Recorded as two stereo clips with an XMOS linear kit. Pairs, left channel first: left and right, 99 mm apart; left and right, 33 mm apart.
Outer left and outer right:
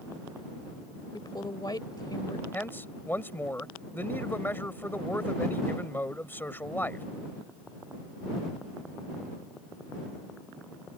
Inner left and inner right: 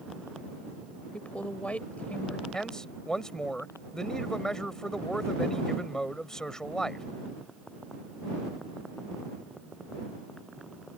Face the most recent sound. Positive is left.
turn(degrees=20)  # may be behind; listen again after turning